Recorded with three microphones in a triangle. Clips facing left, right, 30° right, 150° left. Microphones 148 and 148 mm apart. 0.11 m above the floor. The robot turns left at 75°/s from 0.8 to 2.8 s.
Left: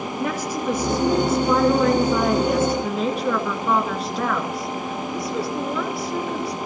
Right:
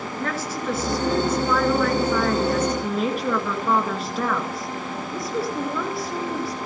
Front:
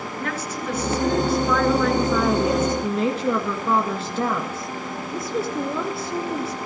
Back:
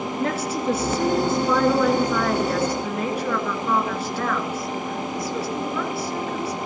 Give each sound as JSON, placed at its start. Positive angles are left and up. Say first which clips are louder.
{"t": 0.2, "sound": "a woman speaking", "louder": "left 3 dB, back 5 dB", "azimuth_deg": 150, "distance_m": 1.7}